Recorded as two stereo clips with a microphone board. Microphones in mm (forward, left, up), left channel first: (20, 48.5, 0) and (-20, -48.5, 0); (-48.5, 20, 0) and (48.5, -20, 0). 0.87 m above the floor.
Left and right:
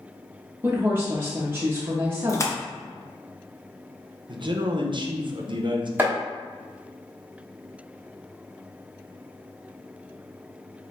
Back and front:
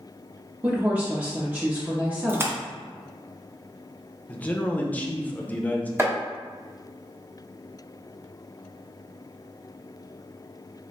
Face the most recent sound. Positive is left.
turn(degrees=-60)